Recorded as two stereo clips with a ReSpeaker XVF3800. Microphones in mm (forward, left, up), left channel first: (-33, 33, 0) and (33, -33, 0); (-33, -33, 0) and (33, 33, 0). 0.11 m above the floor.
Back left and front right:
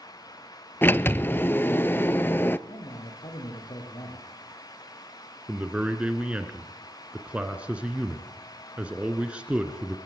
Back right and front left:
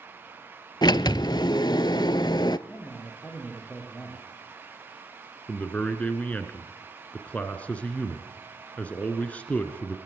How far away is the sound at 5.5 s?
About 1.6 m.